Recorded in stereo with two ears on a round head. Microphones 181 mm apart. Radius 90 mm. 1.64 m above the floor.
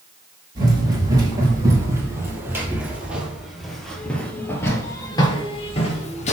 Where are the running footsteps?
20° right (ahead or behind), 3.5 m; by 6.3 s 35° left (ahead or behind), 1.9 m.